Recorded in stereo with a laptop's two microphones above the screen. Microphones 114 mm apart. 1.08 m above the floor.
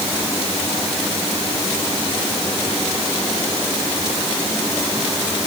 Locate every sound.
Only background noise.